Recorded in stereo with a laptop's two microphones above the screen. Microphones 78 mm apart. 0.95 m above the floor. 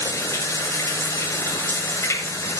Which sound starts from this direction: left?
Running water, at 0.0 s.